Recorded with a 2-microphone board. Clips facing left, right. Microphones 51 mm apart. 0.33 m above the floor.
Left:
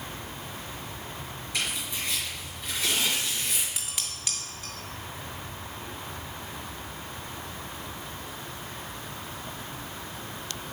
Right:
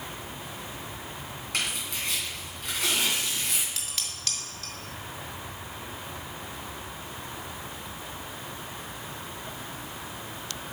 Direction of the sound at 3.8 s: 15° left (ahead or behind).